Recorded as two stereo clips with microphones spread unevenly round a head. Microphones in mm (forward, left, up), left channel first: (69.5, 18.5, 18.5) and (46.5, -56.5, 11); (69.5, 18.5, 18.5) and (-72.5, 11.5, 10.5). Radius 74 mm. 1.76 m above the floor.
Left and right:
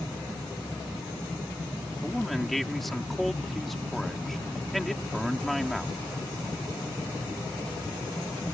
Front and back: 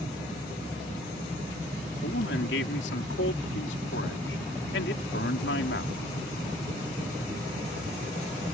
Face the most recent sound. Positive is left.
turn(degrees=-15)